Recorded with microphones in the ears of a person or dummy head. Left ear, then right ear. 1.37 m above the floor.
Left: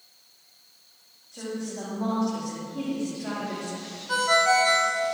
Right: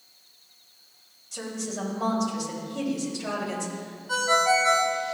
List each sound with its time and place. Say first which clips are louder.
1.3 s a woman speaking: right 1 dB; 65° right (ahead or behind), 3.5 m
4.1 s a ringtone: left 1 dB; 10° left (ahead or behind), 0.7 m